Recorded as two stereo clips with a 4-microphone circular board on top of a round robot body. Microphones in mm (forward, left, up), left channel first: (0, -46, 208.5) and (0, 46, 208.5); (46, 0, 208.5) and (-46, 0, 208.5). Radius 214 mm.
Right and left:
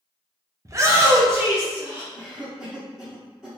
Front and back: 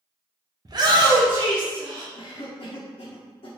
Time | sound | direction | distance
0.7 | a shout | 140° left | 0.7 m
2.1 | a cough | 5° right | 0.7 m